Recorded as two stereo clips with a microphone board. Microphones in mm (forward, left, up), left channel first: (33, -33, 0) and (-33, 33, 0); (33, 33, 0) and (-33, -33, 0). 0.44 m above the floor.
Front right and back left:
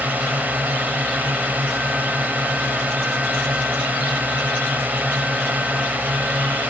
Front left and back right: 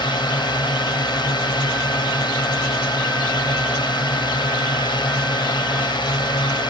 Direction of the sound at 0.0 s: 65° left.